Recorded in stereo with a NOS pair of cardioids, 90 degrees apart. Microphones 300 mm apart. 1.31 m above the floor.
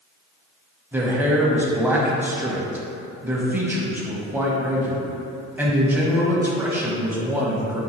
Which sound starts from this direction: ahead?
A man speaking, at 0.9 s.